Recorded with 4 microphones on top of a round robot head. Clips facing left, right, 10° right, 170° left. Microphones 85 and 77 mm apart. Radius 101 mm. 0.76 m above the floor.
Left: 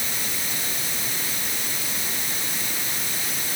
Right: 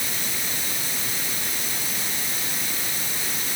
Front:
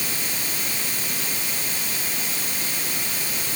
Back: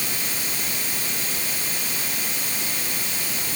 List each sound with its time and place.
Only background noise.